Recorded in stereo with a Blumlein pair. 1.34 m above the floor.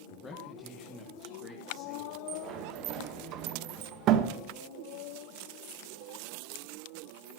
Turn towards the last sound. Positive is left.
turn(degrees=-35)